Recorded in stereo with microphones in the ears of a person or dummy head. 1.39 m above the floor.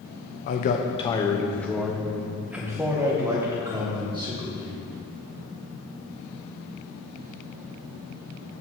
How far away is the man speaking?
About 0.9 m.